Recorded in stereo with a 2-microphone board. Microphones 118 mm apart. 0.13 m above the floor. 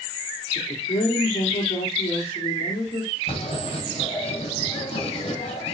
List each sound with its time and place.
0.6 s a woman speaking: 70° left (ahead or behind), 4 m
3.3 s writing: 55° left (ahead or behind), 4 m